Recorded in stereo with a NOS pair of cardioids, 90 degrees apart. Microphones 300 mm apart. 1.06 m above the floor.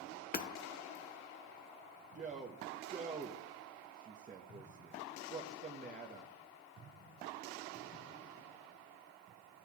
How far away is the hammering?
About 0.7 m.